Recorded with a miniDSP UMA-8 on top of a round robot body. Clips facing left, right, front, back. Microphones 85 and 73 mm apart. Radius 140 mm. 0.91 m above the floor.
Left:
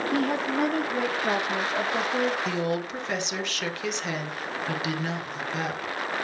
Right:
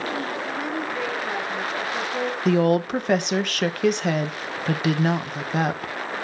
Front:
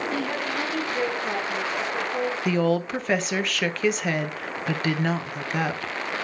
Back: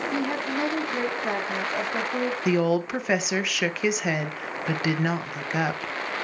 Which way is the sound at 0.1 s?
110° left.